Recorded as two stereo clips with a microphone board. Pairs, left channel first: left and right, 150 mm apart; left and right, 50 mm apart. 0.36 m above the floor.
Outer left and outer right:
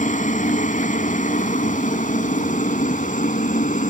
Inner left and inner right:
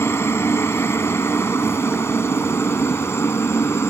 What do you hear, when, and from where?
0.0 s a helicopter: 60° left (ahead or behind)